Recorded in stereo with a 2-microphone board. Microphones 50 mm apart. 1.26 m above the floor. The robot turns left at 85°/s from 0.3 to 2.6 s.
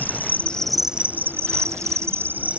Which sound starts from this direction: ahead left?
An insect, at 0.0 s.